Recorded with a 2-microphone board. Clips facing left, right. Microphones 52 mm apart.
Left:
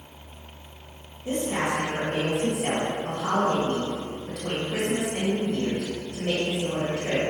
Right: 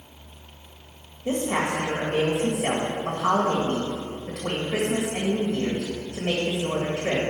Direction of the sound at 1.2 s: 50° right (ahead or behind).